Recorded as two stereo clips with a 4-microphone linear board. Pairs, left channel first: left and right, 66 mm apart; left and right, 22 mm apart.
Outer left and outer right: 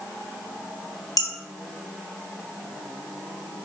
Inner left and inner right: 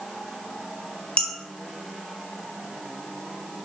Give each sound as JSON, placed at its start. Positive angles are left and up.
{"t": 1.2, "sound": "dishes clattering", "side_deg": 65, "distance_m": 1.6}